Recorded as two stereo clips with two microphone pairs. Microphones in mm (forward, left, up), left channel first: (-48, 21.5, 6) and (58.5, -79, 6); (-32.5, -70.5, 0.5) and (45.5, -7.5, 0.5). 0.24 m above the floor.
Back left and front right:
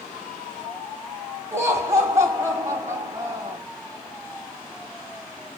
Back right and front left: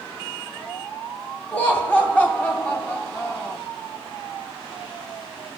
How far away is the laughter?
About 1.6 m.